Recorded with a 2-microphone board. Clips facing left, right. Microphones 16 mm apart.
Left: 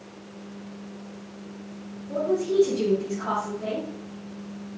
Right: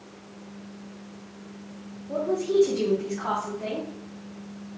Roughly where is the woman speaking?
Right.